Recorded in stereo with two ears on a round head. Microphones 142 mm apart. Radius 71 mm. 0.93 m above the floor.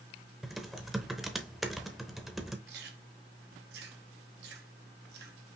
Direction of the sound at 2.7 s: 75° right (ahead or behind).